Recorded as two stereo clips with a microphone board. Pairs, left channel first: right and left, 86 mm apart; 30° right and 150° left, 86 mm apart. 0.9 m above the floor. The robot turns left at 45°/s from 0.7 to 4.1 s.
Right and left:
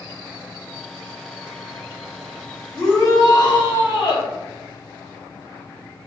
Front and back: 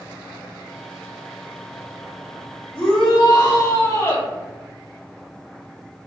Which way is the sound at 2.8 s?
30° right.